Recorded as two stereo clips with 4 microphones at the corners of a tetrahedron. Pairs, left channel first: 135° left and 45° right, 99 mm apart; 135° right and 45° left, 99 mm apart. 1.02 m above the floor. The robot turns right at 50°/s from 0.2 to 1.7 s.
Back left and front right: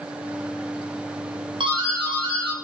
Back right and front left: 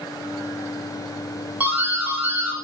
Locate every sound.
1.6 s a doorbell: 30° right, 2.0 m; by 2.5 s 25° right, 2.0 m